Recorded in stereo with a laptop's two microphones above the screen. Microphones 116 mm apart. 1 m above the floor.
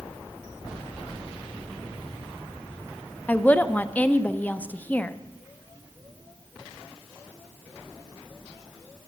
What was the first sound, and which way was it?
A woman speaking, 15° left (ahead or behind).